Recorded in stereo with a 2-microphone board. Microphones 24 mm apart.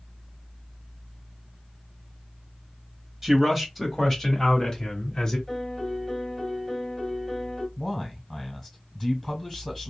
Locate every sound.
3.2 s a man speaking: 15° right (ahead or behind), 1.6 m; by 5.4 s 35° left (ahead or behind), 1.8 m
5.5 s a piano: centre (ahead or behind), 1.4 m
7.8 s a man speaking: 10° left (ahead or behind), 1.4 m